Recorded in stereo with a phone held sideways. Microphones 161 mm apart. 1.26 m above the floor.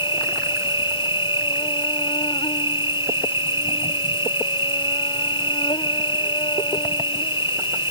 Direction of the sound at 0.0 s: 30° left (ahead or behind).